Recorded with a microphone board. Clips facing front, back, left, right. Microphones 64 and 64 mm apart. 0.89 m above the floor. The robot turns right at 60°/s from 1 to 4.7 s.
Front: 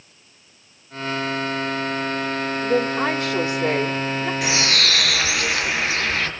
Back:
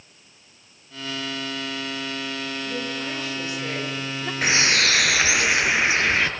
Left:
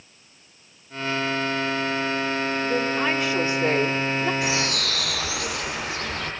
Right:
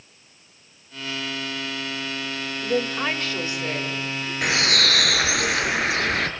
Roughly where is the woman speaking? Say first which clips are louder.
Front 13 dB, right 2 dB; ahead.